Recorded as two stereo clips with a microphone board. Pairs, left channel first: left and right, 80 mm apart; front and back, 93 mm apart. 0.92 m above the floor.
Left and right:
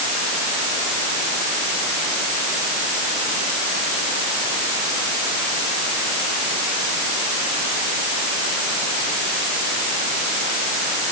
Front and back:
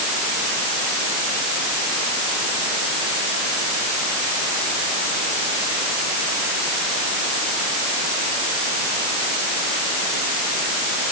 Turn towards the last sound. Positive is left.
No sound to turn to.